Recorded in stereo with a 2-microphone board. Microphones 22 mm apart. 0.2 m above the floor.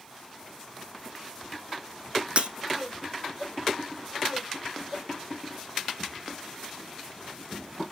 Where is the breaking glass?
60° right (ahead or behind), 0.5 m.